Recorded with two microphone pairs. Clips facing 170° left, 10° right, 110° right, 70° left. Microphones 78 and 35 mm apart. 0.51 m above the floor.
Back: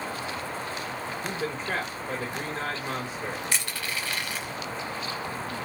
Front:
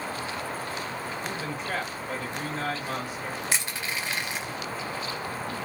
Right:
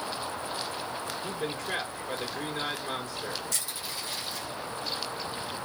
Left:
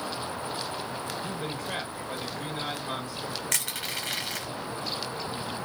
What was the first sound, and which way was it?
A man speaking, 135° right.